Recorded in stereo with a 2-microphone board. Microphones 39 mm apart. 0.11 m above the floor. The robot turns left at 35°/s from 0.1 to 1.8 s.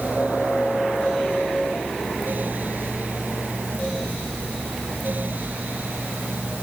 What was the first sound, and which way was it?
Only background noise.